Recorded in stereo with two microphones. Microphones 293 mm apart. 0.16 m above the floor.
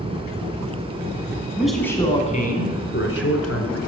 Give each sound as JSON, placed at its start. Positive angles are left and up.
{"t": 1.6, "sound": "a man speaking", "side_deg": -5, "distance_m": 1.0}